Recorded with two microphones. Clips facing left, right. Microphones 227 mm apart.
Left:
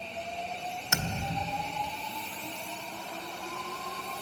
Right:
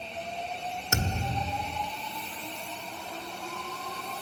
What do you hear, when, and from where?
0.9 s a thud: 35° right (ahead or behind), 1.2 m